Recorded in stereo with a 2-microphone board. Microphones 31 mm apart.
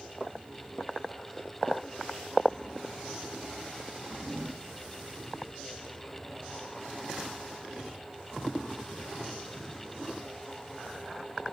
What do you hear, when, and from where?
0.2 s footsteps: 20° right (ahead or behind), 2 m; by 2.1 s 5° left (ahead or behind), 1.1 m